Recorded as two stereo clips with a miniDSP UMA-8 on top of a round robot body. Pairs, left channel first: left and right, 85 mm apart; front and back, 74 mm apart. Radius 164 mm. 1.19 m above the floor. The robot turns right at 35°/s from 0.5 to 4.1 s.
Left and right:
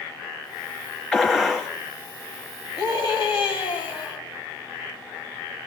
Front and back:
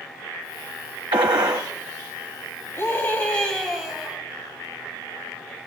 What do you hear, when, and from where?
1.1 s a gunshot: 165° left, 0.8 m; by 1.7 s 175° right, 0.8 m
2.8 s a scream: 55° left, 4 m; by 4.2 s 105° left, 4 m